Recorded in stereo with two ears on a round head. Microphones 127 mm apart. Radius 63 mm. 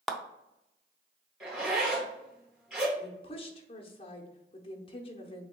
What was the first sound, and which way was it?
A clap, centre (ahead or behind).